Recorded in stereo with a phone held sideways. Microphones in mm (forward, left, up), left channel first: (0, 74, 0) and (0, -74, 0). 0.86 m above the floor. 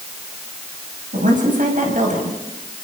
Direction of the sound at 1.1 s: 70° right (ahead or behind).